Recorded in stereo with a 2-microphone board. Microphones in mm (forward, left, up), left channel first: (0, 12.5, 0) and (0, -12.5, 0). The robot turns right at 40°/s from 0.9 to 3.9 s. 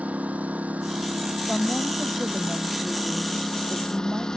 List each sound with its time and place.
0.0 s a lawn mower: 95° right; by 4.4 s 25° left
1.5 s a woman speaking: 145° left; by 4.4 s 115° right